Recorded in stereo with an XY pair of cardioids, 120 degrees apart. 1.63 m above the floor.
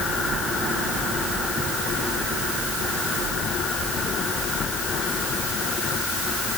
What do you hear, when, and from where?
Only background noise.